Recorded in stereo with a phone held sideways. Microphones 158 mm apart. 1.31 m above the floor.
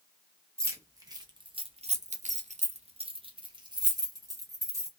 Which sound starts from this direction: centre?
Keys jangling, at 0.6 s.